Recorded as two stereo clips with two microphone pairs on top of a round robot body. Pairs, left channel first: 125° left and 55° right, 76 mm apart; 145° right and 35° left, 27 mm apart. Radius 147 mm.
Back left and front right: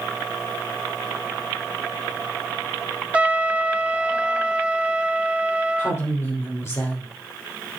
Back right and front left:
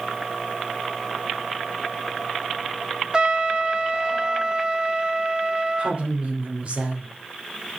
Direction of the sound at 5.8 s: 75° left.